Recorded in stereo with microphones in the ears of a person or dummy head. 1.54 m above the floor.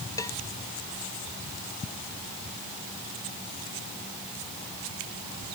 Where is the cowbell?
20° left (ahead or behind).